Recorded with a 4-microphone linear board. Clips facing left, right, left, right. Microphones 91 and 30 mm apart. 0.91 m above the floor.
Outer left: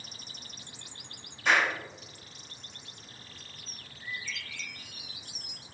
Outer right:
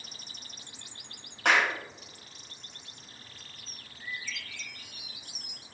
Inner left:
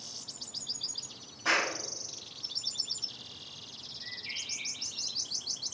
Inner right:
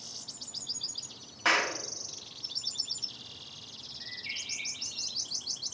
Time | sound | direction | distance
1.4 | a clap | 70° right (ahead or behind) | 1.7 m
4.0 | a bird | 45° right (ahead or behind) | 3 m